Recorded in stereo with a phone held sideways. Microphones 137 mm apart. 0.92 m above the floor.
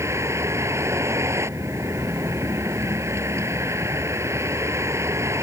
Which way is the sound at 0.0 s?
20° right (ahead or behind).